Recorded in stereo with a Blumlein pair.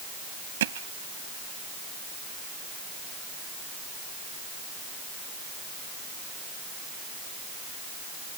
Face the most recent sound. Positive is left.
turn(degrees=-60)